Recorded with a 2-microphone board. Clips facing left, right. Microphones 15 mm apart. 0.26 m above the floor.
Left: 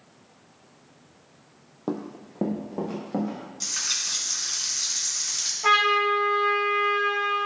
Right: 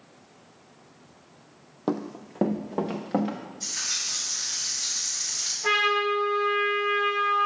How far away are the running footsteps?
About 0.5 m.